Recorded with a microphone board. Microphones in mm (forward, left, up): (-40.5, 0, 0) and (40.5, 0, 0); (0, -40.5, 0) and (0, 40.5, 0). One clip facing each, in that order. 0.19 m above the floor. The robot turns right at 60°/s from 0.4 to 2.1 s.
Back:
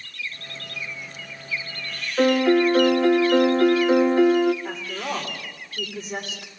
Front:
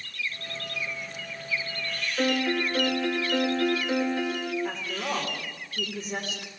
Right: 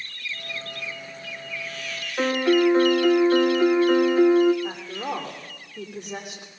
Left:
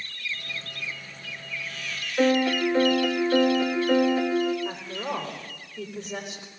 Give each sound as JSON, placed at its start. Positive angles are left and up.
{"t": 2.2, "sound": "a piano", "azimuth_deg": -145, "distance_m": 1.5}
{"t": 4.6, "sound": "a woman speaking", "azimuth_deg": -95, "distance_m": 9.0}